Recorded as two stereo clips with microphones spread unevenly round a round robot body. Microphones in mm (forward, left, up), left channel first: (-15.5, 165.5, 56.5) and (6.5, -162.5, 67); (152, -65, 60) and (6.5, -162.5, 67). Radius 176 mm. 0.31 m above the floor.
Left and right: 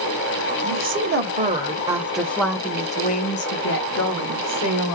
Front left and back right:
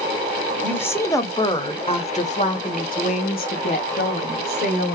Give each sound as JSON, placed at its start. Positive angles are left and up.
{"t": 0.6, "sound": "a woman speaking", "azimuth_deg": -45, "distance_m": 1.8}